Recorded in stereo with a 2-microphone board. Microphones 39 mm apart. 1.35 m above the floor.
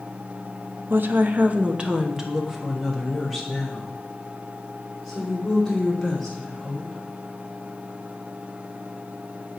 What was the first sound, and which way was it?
A woman speaking, 65° right (ahead or behind).